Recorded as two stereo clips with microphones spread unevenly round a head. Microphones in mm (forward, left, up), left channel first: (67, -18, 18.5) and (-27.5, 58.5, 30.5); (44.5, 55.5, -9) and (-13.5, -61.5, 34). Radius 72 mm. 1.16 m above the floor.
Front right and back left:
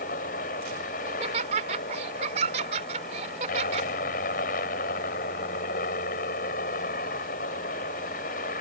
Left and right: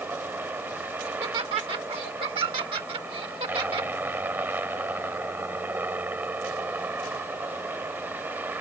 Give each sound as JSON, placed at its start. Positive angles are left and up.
{"t": 0.0, "sound": "a helicopter", "azimuth_deg": -40}
{"t": 1.1, "sound": "laughter", "azimuth_deg": -175}